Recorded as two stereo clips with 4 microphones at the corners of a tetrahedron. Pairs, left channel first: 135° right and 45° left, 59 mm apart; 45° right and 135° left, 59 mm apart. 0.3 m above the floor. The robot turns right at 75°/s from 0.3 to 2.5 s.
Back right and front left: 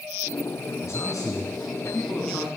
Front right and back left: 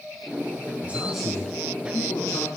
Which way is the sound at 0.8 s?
165° right.